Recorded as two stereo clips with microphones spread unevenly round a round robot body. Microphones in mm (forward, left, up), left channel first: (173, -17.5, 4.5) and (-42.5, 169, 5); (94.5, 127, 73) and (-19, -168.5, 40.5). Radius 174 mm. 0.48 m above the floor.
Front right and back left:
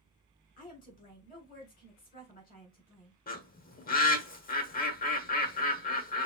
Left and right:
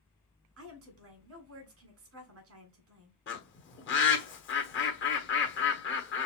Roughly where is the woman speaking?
Right.